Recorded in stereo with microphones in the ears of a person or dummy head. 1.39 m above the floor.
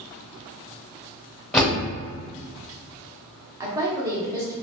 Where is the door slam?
5° left (ahead or behind), 1.3 m.